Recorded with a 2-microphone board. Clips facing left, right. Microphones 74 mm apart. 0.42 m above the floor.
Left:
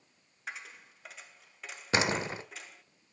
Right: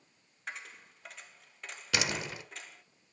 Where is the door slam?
35° left (ahead or behind), 1.0 m.